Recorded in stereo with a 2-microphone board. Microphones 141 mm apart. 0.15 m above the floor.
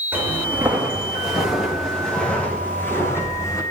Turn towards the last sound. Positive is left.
turn(degrees=25)  # may be behind; listen again after turning